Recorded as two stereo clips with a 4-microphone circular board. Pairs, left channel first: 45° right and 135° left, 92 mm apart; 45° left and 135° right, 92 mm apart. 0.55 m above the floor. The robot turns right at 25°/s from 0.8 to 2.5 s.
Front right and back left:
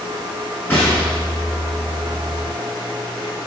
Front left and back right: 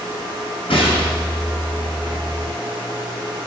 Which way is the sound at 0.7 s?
20° left.